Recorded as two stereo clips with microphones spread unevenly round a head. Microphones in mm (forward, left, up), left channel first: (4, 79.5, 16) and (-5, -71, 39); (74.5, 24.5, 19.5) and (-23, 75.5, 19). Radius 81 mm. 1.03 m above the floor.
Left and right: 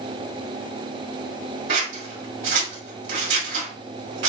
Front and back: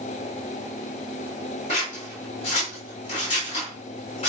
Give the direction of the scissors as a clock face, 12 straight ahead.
3 o'clock.